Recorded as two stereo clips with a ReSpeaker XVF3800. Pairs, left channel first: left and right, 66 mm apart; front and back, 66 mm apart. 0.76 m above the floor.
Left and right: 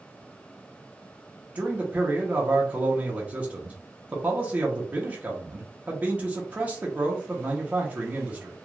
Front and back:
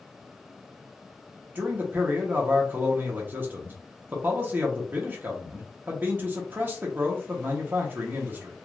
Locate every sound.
1.6 s a man speaking: 145° right, 0.9 m